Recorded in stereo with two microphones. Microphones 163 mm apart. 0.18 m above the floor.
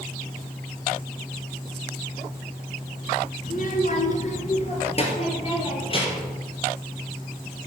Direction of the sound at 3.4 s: 55° left (ahead or behind).